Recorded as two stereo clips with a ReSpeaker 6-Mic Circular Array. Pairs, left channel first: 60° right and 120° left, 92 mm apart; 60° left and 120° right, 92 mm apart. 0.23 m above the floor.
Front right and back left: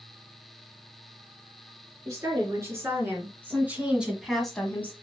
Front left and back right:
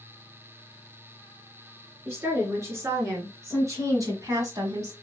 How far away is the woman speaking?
About 3.5 m.